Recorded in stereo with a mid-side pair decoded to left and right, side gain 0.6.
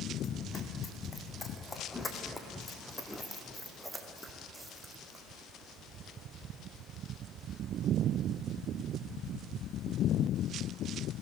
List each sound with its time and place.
0.2 s running footsteps: 35° left, 3.5 m; by 5.2 s 15° right, 3.5 m